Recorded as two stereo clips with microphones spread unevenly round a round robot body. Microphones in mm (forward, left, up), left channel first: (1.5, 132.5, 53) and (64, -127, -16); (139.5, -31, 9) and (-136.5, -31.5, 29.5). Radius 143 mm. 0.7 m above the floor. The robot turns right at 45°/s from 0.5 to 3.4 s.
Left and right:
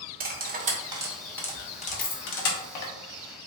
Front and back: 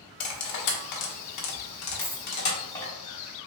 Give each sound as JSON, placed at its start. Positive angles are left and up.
{"t": 0.2, "sound": "cutlery clinking", "azimuth_deg": -25, "distance_m": 0.9}
{"t": 2.0, "sound": "a dropped coin", "azimuth_deg": 80, "distance_m": 0.9}